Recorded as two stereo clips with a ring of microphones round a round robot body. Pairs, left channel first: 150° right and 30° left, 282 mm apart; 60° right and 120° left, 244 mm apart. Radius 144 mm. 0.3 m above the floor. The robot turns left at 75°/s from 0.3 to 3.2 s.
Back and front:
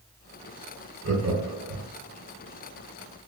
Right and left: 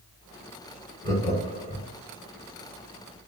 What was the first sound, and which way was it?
Laughter, 5° left.